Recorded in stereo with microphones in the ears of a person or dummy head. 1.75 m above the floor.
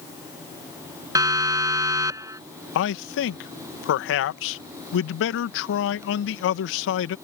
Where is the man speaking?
65° left (ahead or behind).